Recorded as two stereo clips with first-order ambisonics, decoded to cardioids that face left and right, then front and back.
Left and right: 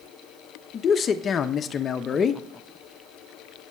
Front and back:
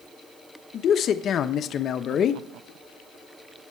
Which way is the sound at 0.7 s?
35° left.